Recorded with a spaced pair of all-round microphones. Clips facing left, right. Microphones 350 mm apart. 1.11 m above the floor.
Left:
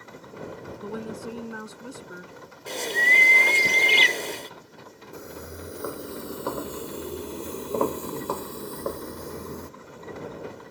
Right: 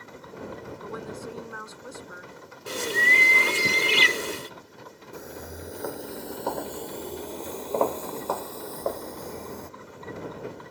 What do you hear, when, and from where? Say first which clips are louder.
0.8 s a woman speaking: left 4 dB; 45° left (ahead or behind)
2.7 s a bird: right 1 dB; 15° right (ahead or behind)
5.1 s footsteps: even; 5° left (ahead or behind); by 9.7 s 20° left (ahead or behind)